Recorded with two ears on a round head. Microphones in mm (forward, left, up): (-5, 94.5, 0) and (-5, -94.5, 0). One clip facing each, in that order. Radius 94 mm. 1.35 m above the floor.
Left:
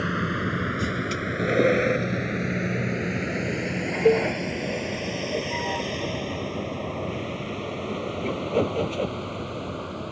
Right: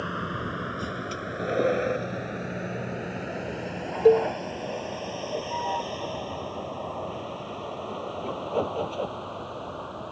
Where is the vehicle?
25° left (ahead or behind); by 10.1 s 30° left (ahead or behind).